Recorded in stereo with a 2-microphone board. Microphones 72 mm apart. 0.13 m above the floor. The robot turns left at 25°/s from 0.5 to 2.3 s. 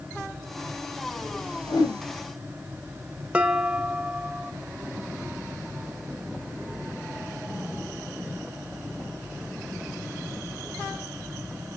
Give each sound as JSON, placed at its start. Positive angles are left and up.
{"t": 1.7, "sound": "a whoosh", "side_deg": 75, "distance_m": 3.0}
{"t": 3.3, "sound": "dishes clattering", "side_deg": -20, "distance_m": 0.7}